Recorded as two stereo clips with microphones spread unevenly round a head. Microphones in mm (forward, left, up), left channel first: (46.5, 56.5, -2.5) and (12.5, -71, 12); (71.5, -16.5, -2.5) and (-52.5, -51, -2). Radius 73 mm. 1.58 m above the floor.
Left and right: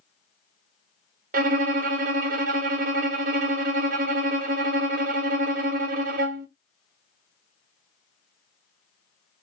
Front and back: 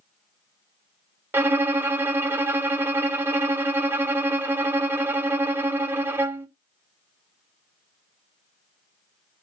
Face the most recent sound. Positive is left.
turn(degrees=-90)